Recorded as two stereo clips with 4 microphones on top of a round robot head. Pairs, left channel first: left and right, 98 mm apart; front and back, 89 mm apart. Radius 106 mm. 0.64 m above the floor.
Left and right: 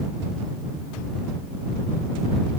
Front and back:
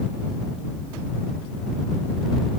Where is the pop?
No pop in this recording.